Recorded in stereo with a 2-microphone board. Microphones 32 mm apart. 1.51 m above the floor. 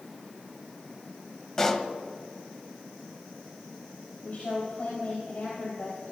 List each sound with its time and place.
1.6 s a pop: 15° left (ahead or behind), 0.8 m
4.2 s a woman speaking: 60° left (ahead or behind), 4 m